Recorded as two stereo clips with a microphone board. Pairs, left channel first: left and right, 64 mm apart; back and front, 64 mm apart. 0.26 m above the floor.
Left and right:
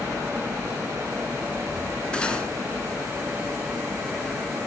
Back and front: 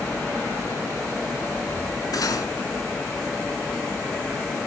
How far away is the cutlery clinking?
About 1.5 m.